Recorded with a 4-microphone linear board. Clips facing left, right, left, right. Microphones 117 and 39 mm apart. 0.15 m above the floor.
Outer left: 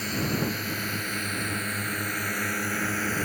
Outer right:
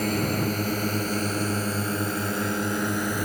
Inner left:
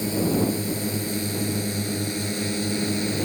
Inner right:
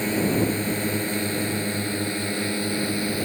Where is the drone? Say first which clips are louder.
Outer right 3 dB, inner right 1 dB; 45° right (ahead or behind); by 3.3 s 15° right (ahead or behind).